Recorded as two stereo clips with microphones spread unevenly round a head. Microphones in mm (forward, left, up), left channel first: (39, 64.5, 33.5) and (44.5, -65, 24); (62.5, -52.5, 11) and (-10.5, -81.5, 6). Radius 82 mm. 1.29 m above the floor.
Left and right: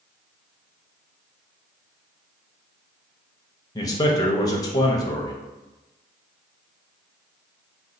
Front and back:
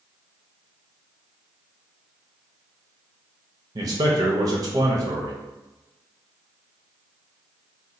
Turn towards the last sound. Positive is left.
turn(degrees=155)